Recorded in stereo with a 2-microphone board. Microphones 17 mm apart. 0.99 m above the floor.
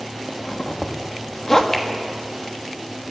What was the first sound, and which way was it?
A zipper, 30° left (ahead or behind).